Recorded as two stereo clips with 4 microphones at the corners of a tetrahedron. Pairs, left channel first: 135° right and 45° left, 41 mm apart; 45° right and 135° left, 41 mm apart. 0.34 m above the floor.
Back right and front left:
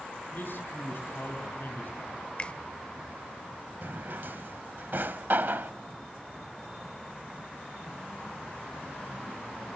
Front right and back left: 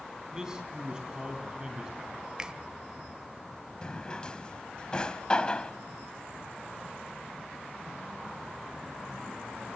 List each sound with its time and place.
0.3 s a man speaking: 155° right, 3 m
2.4 s a finger snap: 170° right, 0.8 m
3.8 s a drawer: 20° left, 0.6 m